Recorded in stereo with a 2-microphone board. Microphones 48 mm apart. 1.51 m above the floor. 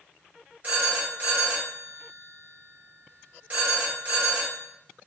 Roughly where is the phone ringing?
Right.